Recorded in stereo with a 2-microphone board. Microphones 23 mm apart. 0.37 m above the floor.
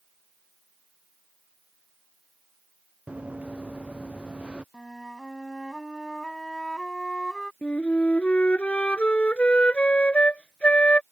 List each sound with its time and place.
3.1 s running footsteps: 60° right (ahead or behind); by 4.6 s 55° right (ahead or behind)
4.7 s a flute: 25° left (ahead or behind)
7.6 s a flute: 80° left